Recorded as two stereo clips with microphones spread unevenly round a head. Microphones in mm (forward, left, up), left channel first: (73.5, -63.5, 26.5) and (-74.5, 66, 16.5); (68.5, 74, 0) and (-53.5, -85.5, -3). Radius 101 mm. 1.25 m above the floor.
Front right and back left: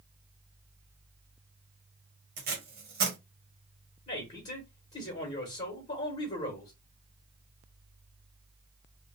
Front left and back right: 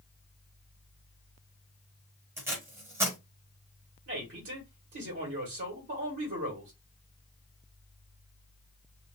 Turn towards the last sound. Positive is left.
turn(degrees=-100)